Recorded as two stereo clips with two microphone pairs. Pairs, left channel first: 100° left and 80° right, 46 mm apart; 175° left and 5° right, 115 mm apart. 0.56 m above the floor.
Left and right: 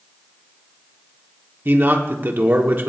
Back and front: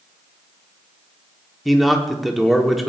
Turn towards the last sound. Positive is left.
turn(degrees=-90)